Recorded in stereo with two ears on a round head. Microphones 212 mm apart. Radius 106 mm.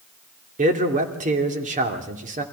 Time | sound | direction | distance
0.6 | a man speaking | 35° right (ahead or behind) | 2.5 m